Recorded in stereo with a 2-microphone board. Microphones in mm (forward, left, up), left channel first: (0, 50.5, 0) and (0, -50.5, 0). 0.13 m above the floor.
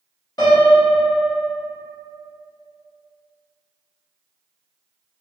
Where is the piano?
40° left (ahead or behind), 1.4 m.